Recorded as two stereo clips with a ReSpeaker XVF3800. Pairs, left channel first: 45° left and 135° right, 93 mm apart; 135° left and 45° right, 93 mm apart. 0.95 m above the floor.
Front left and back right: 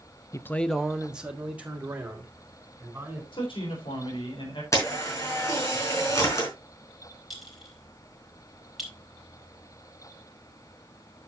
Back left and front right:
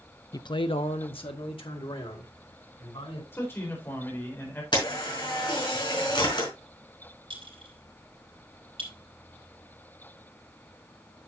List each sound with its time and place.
0.3 s a man speaking: 95° left, 0.5 m; by 3.2 s 155° left, 4 m
3.3 s a man speaking: 70° left, 4 m
4.7 s a camera shutter: 100° left, 4 m
7.3 s a clink: 45° right, 4 m